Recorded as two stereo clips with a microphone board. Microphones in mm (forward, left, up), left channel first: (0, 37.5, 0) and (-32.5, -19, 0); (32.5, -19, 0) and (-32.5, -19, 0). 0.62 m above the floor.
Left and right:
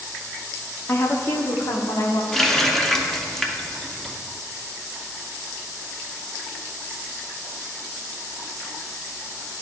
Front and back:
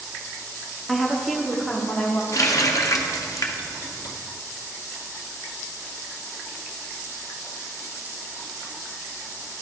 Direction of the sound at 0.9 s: 95° left.